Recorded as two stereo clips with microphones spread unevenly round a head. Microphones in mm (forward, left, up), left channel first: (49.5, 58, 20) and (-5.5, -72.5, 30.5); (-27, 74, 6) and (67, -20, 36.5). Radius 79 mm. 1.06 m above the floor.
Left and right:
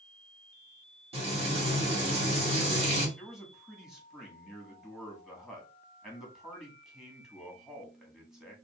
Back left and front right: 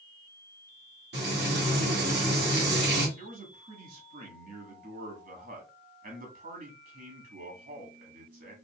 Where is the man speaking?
25° right, 2 m.